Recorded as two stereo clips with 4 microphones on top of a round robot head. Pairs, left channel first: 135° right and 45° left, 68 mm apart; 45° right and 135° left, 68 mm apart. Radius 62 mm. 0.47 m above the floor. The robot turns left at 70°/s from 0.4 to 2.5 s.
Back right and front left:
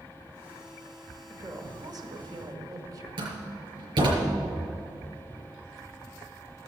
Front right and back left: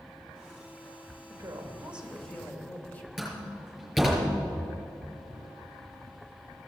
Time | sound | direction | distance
1.3 | a woman speaking | 105° left | 1.9 m
3.2 | a door slam | 45° left | 5.5 m